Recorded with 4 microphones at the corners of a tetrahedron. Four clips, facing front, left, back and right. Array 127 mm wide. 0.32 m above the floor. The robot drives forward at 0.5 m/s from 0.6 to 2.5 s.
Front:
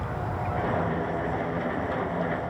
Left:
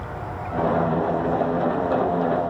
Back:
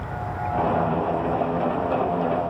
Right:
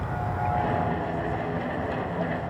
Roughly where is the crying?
I don't hear crying.